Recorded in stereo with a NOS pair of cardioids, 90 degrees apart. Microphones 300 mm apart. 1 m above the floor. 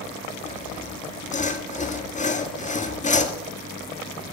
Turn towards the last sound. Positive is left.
turn(degrees=25)